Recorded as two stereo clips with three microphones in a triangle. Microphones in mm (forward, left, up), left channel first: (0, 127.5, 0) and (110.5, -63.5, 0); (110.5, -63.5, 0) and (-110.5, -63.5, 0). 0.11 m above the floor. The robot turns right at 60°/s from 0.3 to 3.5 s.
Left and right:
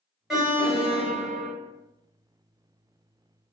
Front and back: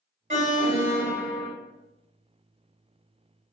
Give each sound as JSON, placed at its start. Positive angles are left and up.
{"t": 0.3, "sound": "an alarm", "azimuth_deg": -150, "distance_m": 0.9}